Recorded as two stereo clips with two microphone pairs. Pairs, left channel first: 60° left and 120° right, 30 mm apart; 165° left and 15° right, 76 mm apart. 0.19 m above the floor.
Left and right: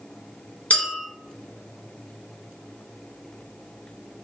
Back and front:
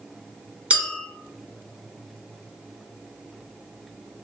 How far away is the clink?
About 0.9 m.